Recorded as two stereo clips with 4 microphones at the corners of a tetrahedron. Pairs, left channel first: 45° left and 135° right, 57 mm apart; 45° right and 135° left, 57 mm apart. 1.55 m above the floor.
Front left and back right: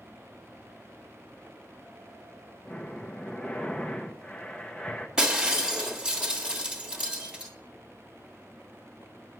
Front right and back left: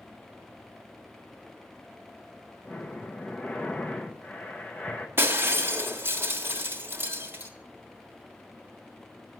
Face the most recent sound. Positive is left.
turn(degrees=155)